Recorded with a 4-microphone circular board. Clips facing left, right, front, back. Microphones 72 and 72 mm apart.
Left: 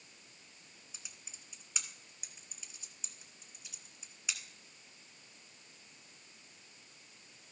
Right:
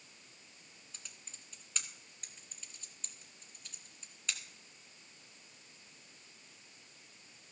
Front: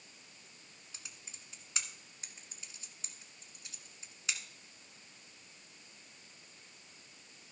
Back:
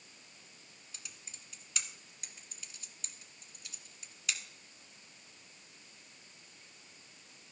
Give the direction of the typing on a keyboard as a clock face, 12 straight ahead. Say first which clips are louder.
Even, even; 11 o'clock.